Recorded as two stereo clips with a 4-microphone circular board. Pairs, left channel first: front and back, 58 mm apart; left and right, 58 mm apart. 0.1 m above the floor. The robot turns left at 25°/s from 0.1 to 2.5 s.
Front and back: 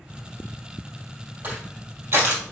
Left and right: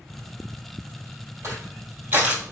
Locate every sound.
1.4 s crushing: 125° right, 3 m; by 2.5 s 150° right, 3 m